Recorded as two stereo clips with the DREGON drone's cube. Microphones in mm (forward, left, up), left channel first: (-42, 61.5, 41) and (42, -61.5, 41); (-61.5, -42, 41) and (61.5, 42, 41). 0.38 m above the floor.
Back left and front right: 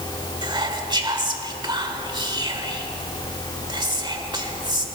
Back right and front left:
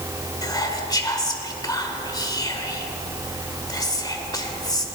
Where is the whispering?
95° right, 1.5 m.